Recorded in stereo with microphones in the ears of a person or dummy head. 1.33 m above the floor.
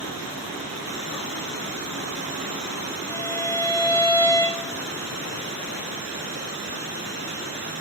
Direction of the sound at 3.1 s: 10° left (ahead or behind).